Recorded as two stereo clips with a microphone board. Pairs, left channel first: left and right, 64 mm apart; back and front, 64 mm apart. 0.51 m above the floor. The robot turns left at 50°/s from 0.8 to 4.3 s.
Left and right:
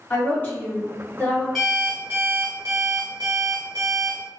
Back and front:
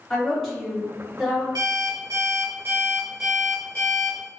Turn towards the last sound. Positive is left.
turn(degrees=-135)